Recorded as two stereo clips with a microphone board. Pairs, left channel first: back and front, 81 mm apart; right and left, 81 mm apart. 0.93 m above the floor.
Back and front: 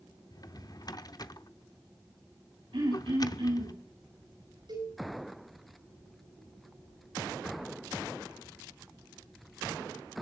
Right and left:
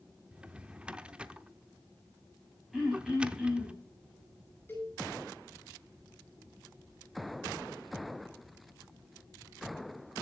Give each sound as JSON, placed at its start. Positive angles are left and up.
{"t": 0.3, "sound": "a drawer", "azimuth_deg": 165, "distance_m": 0.7}
{"t": 2.7, "sound": "throat clearing", "azimuth_deg": 0, "distance_m": 8.0}
{"t": 4.7, "sound": "a cowbell", "azimuth_deg": -25, "distance_m": 9.5}